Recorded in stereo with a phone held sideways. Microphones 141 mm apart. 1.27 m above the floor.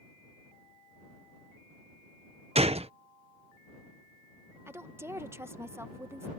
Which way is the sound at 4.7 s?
15° right (ahead or behind).